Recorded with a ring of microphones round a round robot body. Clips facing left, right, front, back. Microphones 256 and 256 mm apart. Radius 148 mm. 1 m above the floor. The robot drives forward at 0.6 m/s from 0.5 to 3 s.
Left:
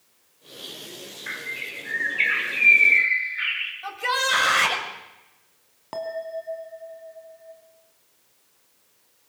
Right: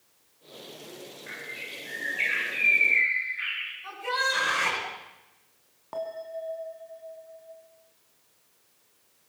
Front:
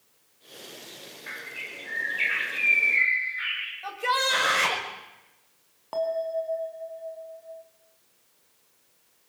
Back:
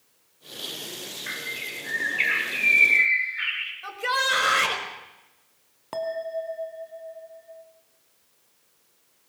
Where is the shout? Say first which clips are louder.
Left 3 dB, front 1 dB; 105° left, 5.5 m.